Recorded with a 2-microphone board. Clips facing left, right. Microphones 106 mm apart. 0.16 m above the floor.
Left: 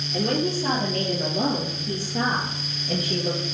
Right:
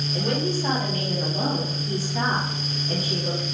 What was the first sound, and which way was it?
A woman speaking, 65° left (ahead or behind).